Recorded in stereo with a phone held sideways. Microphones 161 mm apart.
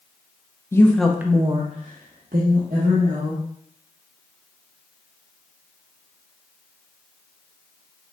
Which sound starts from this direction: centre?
A woman speaking, at 0.7 s.